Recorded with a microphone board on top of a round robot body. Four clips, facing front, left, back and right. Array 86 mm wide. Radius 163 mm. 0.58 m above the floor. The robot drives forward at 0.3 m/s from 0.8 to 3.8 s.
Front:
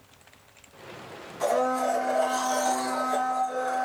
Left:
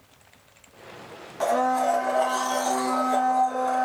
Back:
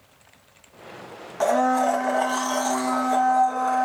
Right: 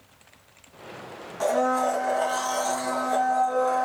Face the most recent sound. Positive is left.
turn(degrees=175)